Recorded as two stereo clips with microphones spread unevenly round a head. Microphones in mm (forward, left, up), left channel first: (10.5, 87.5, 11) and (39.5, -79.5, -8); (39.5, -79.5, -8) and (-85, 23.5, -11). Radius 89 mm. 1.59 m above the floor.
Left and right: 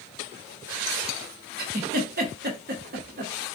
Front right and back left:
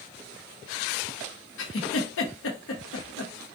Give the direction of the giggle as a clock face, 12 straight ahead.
1 o'clock.